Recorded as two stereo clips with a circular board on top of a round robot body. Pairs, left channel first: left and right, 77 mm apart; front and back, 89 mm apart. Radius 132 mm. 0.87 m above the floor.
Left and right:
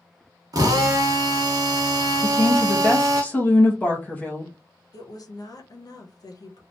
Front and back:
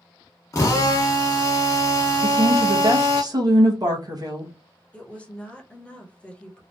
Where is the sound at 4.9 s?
75° left, 1.1 m.